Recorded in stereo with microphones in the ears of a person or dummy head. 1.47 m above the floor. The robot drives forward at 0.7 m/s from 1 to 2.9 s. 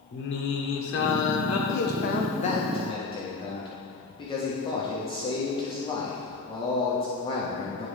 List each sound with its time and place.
0.1 s singing: 65° left (ahead or behind), 1.0 m; by 1.6 s 80° left, 0.9 m
1.7 s a man speaking: 70° left (ahead or behind), 0.6 m; by 7.9 s 30° left (ahead or behind), 1.2 m